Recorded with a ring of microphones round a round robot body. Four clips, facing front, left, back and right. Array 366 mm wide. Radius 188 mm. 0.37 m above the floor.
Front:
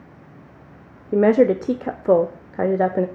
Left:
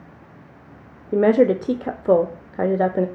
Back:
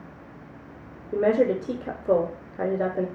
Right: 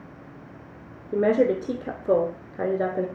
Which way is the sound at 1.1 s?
40° left.